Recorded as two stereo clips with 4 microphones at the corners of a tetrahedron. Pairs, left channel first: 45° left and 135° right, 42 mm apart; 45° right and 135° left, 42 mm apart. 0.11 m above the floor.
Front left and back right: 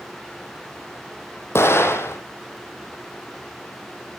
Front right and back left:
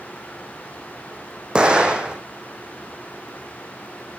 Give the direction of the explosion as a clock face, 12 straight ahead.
10 o'clock.